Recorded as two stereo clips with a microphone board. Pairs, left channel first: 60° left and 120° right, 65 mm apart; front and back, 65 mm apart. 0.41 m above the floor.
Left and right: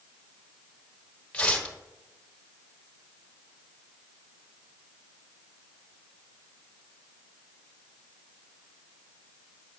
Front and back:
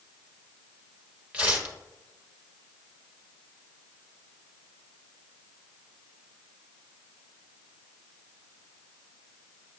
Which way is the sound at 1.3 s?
130° left.